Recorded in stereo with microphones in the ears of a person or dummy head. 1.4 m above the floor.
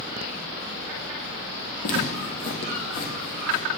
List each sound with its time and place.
1.8 s footsteps: 60° left (ahead or behind), 2.5 m; by 3.7 s 45° left (ahead or behind), 3.5 m